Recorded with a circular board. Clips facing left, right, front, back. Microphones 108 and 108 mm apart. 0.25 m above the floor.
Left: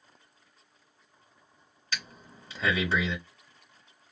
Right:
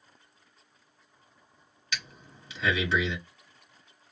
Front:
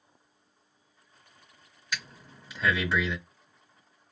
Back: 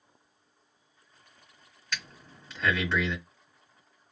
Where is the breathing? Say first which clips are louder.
Even, front 1 dB; 75° left, 1.4 m.